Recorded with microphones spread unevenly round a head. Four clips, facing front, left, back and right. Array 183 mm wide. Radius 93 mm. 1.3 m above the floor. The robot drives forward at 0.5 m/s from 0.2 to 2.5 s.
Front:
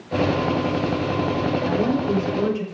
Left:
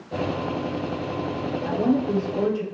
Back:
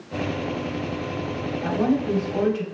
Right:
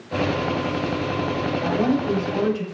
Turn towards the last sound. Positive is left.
turn(degrees=-130)